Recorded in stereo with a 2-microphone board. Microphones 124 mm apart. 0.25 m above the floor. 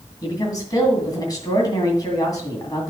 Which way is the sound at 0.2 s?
30° left (ahead or behind).